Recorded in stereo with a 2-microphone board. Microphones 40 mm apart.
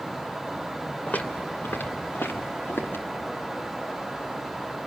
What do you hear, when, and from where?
1.1 s footsteps: 45° left (ahead or behind), 1.6 m; by 3.0 s 90° left, 2.5 m